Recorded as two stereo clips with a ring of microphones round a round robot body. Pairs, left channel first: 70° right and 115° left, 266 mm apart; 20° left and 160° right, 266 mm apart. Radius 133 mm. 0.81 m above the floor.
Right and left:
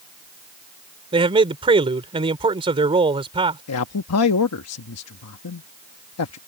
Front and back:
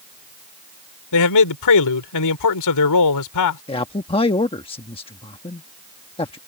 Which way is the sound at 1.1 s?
40° left.